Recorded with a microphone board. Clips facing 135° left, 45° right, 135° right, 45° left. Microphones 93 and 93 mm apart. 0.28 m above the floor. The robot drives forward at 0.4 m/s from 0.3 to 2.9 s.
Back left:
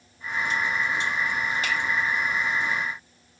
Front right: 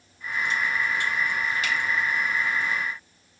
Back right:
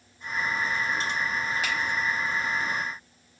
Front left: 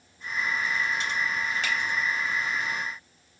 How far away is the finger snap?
About 1.2 m.